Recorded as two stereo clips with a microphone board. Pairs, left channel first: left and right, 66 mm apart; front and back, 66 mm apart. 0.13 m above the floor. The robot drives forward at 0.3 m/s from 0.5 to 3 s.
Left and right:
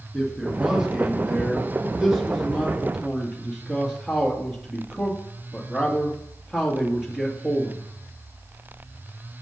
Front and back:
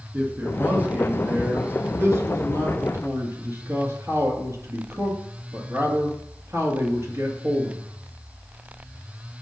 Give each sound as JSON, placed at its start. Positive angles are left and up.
{"t": 0.1, "sound": "a man speaking", "azimuth_deg": -155, "distance_m": 1.4}